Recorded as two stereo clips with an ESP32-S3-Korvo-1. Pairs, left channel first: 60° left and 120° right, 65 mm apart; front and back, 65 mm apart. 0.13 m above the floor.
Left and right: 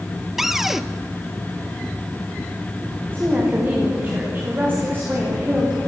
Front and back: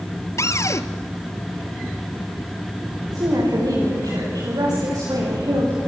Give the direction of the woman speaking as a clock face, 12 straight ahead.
6 o'clock.